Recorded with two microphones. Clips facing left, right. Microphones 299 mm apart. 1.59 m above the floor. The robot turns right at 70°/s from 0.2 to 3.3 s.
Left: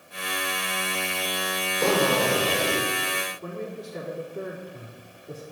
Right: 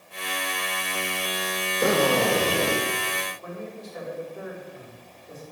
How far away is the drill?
About 2.5 m.